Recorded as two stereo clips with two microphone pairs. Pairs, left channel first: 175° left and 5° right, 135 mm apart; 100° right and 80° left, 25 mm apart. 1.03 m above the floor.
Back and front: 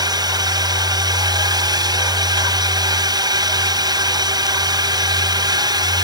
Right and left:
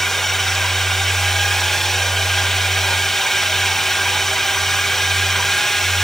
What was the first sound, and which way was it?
A drone, 35° right.